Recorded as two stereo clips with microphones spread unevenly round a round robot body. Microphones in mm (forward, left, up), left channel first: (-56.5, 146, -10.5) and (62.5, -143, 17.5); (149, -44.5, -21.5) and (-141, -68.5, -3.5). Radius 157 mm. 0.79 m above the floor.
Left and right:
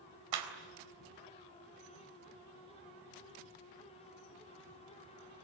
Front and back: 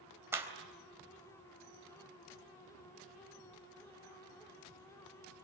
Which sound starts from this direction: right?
A clap, at 0.3 s.